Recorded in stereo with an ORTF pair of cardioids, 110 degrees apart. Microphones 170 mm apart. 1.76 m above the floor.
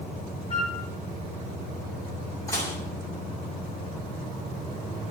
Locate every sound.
0.5 s a flute: 35° left, 7 m
2.5 s dishes clattering: 20° left, 7 m